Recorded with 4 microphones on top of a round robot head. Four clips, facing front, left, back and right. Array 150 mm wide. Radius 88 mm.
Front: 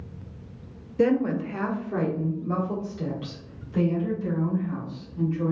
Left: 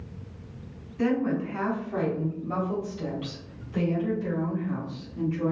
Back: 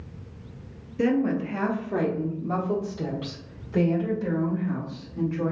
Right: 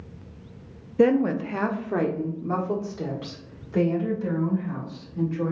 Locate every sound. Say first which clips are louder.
1.0 s a woman speaking: right 6 dB, front 1 dB; 75° right, 0.6 m; by 5.5 s 140° right, 2.5 m